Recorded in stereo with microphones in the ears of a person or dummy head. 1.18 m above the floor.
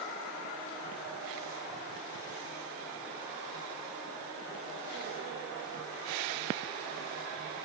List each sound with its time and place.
Only background noise.